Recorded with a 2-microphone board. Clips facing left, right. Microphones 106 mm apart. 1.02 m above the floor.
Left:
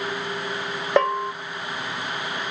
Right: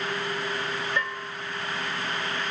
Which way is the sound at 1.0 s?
70° left (ahead or behind).